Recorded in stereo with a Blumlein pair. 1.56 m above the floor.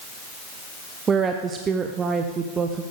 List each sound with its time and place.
1.1 s a woman speaking: 20° right, 0.9 m